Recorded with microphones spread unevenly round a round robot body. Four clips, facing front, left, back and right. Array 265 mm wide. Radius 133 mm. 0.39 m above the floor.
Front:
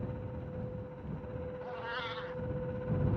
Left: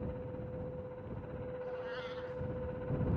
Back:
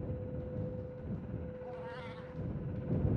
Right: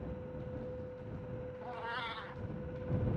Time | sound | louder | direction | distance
1.6 | a cat meowing | right 1 dB, front 4 dB | 45° right | ?